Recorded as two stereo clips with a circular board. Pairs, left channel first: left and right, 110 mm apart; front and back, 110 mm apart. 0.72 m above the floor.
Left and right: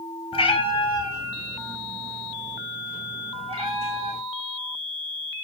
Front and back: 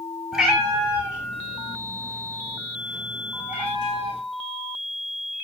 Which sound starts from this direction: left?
A cat meowing, at 0.3 s.